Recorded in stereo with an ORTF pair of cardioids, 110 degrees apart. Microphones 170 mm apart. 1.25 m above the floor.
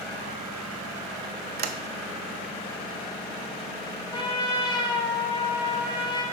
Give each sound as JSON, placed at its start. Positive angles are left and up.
{"t": 1.6, "sound": "a sliding door", "azimuth_deg": -70, "distance_m": 0.8}
{"t": 4.1, "sound": "a trumpet", "azimuth_deg": 30, "distance_m": 2.0}